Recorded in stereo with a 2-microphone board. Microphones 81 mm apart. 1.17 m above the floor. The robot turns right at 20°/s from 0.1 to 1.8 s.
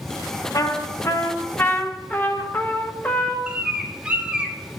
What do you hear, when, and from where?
0.5 s a trumpet: 45° left (ahead or behind), 0.8 m; by 3.4 s 25° left (ahead or behind), 0.8 m
3.5 s a bird: 15° right (ahead or behind), 0.8 m